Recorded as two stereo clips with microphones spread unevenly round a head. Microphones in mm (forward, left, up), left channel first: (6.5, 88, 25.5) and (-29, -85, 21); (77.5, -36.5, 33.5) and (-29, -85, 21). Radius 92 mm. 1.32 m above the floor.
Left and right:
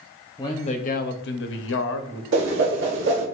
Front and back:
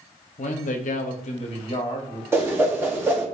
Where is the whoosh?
80° right, 1.4 m.